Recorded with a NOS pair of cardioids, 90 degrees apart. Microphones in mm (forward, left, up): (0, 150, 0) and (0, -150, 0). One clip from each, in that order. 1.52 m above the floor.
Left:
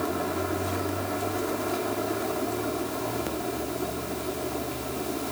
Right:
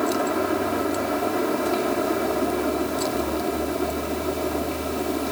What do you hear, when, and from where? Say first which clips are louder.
0.0 s a fan: right 6 dB; 45° right